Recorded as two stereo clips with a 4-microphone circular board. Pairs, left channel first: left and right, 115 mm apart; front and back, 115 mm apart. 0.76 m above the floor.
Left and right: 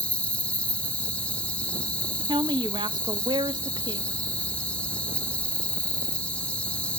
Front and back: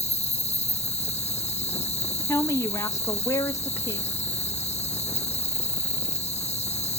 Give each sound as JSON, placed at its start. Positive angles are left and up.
{"t": 0.0, "sound": "an insect", "azimuth_deg": 10, "distance_m": 0.9}
{"t": 2.3, "sound": "a woman speaking", "azimuth_deg": -55, "distance_m": 0.8}